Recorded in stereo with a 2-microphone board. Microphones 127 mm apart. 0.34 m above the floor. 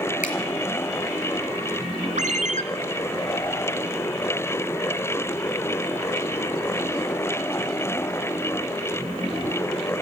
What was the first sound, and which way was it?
A finger snap, 80° left.